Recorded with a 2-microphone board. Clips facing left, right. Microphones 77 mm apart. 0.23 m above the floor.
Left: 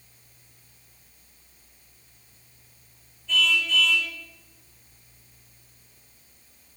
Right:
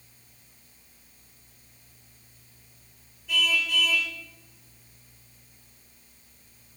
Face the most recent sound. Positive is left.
turn(degrees=-10)  # may be behind; listen again after turning